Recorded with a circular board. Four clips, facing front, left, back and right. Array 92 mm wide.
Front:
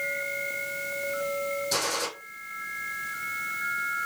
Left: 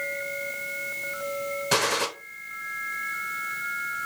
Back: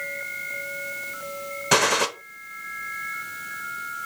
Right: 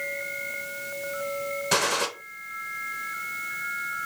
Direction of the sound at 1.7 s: Straight behind.